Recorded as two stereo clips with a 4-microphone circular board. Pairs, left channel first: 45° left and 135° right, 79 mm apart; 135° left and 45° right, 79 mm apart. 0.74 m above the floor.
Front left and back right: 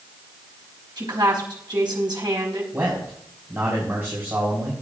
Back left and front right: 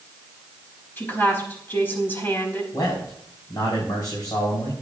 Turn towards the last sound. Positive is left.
turn(degrees=170)